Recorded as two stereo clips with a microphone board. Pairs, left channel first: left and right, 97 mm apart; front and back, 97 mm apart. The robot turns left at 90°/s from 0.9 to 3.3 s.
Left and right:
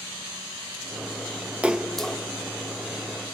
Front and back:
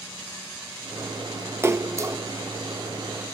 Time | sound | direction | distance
1.6 | a splash | 155° right | 0.7 m